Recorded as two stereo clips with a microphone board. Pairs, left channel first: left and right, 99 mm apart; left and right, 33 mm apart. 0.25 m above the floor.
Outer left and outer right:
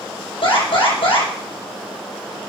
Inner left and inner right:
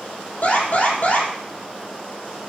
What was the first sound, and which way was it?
An alarm, 55° left (ahead or behind).